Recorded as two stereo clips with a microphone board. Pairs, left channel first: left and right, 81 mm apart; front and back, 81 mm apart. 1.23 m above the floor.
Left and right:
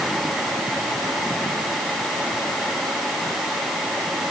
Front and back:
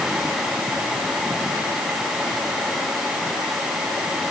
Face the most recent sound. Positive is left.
No sound to turn to.